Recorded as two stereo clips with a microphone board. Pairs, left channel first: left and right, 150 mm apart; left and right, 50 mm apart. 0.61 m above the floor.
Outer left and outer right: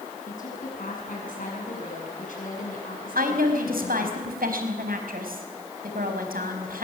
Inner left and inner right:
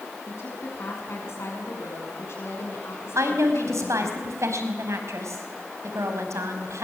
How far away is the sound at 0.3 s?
About 7 m.